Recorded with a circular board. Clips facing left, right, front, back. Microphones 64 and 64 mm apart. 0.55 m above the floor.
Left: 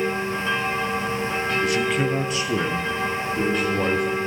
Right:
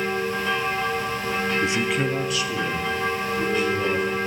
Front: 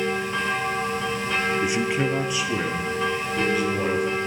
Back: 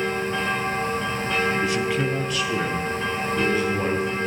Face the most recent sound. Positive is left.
turn(degrees=85)